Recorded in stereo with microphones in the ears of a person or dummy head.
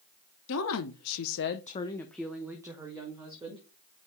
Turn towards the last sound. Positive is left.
turn(degrees=-20)  # may be behind; listen again after turning